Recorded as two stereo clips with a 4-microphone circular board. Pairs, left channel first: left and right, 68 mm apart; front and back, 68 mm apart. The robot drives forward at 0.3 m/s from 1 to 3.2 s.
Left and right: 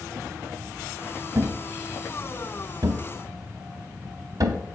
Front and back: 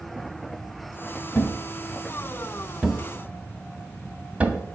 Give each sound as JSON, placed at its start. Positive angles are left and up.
{"t": 1.4, "sound": "a thud", "azimuth_deg": -55, "distance_m": 0.7}